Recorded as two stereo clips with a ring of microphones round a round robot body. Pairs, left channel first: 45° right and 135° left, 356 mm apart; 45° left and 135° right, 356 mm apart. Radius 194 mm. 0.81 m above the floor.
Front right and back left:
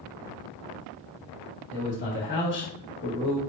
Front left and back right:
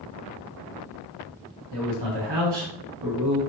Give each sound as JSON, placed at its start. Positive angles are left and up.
{"t": 1.7, "sound": "a man speaking", "azimuth_deg": -105, "distance_m": 1.9}